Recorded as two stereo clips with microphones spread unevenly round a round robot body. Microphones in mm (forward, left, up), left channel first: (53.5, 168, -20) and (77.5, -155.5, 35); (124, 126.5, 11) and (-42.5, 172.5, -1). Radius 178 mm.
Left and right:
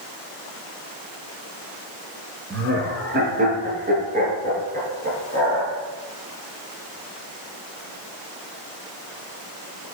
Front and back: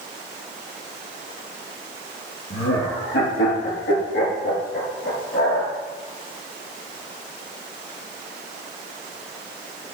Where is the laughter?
25° right, 5.5 m; by 5.7 s 20° right, 7 m.